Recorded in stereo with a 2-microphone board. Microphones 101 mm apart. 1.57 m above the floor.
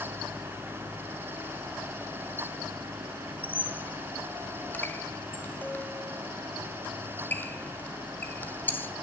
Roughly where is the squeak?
Centre.